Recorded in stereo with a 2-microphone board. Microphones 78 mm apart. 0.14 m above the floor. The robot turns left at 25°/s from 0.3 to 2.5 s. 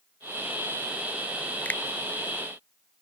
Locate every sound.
1.6 s a finger snap: 20° left (ahead or behind); by 1.8 s 25° left (ahead or behind)